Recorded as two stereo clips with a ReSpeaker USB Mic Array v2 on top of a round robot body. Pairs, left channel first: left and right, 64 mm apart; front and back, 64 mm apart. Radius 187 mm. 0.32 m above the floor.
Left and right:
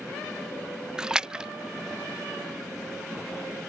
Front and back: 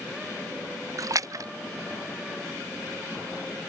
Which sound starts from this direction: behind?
A splash, at 1.0 s.